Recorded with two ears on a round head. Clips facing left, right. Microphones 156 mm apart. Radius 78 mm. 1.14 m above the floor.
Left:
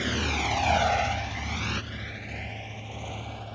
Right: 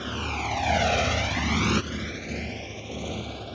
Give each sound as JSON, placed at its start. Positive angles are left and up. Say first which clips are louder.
{"t": 0.0, "sound": "a motorcycle", "louder": "left 2 dB", "side_deg": 20}